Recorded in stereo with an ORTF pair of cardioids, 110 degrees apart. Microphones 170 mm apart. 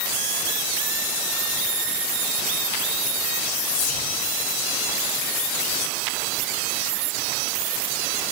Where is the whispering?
55° left, 0.8 m.